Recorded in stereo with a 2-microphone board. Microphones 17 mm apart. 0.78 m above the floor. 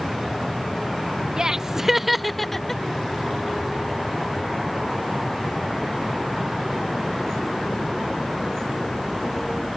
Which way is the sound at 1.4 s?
40° right (ahead or behind).